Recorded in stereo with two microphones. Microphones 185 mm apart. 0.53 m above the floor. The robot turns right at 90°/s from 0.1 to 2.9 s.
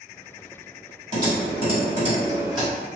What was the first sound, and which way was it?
Typing on a keyboard, 35° right (ahead or behind).